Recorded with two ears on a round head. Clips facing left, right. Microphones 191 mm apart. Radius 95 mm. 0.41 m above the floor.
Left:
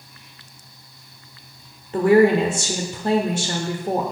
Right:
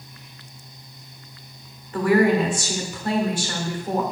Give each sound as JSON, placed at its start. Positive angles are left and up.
{"t": 1.9, "sound": "a woman speaking", "side_deg": 25, "distance_m": 1.0}